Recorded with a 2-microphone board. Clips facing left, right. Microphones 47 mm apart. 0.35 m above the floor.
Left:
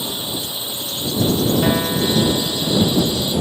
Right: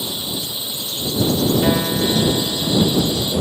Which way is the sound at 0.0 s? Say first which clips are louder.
Left 1 dB; 20° left (ahead or behind).